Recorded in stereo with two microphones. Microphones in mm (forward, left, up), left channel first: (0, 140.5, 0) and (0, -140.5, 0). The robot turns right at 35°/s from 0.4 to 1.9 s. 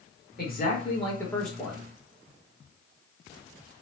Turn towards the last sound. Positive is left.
turn(degrees=-165)